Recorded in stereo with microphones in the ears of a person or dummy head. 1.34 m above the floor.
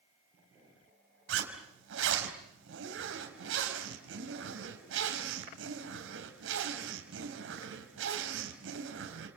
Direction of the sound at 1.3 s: 85° right.